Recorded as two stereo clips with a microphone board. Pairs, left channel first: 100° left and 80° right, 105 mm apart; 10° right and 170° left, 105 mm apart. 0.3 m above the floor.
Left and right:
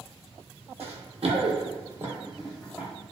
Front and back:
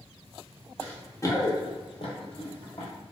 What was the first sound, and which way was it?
Running footsteps, 90° right.